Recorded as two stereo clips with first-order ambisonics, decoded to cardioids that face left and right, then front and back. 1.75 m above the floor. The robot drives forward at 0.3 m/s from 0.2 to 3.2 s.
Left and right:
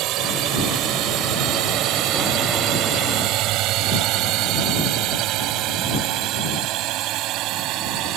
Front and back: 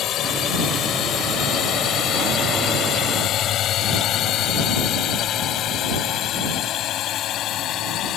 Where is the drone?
50° right.